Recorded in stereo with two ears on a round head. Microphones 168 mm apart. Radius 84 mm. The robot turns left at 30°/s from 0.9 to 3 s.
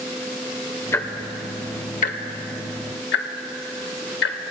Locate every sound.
0.9 s ticking: 15° left (ahead or behind), 1.0 m; by 4.4 s 60° left (ahead or behind), 1.0 m